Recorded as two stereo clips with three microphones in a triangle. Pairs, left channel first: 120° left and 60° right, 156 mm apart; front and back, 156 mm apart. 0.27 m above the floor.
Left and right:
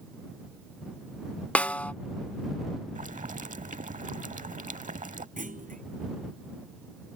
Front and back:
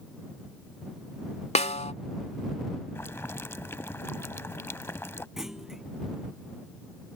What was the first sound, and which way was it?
A snare drum, 40° left.